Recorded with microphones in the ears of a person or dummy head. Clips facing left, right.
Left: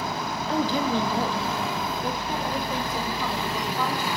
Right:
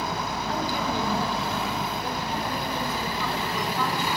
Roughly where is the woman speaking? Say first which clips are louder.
Left 5 dB; left.